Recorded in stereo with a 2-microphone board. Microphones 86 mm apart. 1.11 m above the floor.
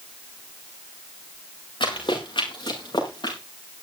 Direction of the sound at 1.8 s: 75° left (ahead or behind).